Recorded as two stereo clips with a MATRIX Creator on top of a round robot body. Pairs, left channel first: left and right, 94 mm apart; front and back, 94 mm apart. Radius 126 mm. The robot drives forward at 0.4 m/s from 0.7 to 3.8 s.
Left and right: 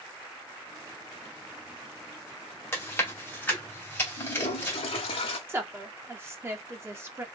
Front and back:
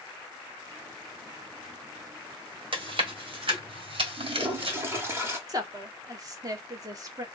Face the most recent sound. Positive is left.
turn(degrees=-145)